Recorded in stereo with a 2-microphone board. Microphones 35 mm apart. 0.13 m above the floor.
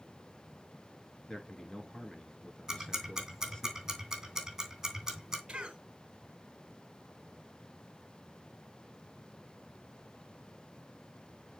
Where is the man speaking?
20° left (ahead or behind), 1.4 m.